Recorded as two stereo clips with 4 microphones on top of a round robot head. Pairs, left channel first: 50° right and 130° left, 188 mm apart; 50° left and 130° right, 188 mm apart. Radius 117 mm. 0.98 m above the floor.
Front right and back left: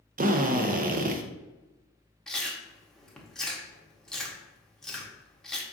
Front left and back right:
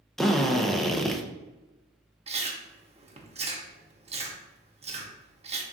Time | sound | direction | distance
0.2 | a drill | 135° left | 0.6 m
2.3 | chewing | 135° right | 0.9 m